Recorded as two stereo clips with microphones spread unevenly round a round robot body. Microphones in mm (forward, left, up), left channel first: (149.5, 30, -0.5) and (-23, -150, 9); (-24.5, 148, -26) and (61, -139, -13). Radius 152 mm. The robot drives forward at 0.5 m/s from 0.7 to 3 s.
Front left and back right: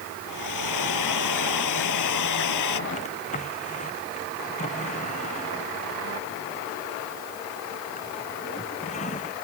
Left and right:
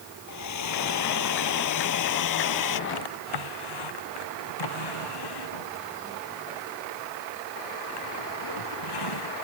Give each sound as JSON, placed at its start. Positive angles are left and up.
{"t": 0.3, "sound": "a hair dryer", "azimuth_deg": 75}
{"t": 2.9, "sound": "a drawer", "azimuth_deg": 115}